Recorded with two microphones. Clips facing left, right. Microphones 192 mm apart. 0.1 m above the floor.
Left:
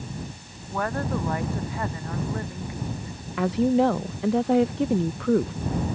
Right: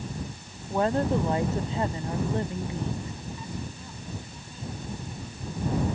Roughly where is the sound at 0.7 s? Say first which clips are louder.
Right 3 dB; right.